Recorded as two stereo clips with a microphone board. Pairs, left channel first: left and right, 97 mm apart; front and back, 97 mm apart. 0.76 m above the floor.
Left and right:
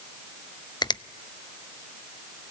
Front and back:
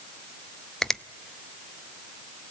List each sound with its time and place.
0.8 s a finger snap: 85° left, 0.6 m